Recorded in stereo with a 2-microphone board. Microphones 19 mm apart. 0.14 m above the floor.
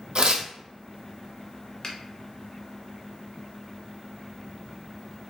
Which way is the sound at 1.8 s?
30° left (ahead or behind).